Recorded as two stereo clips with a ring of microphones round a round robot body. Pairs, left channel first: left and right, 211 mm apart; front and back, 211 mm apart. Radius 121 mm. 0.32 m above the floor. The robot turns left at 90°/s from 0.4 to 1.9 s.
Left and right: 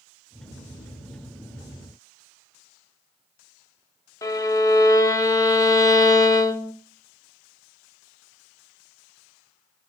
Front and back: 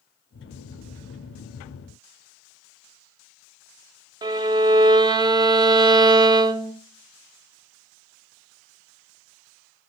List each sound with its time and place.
4.2 s a violin: 140° left, 0.9 m